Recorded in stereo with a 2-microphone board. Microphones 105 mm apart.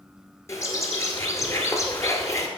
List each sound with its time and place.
0.5 s a bird: 30° left (ahead or behind), 1.6 m